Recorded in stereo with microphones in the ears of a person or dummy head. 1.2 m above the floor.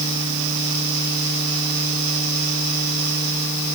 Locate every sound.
Only background noise.